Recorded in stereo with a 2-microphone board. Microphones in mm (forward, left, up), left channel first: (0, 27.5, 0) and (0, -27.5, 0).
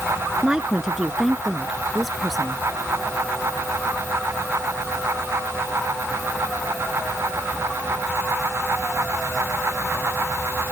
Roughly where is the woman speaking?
Centre.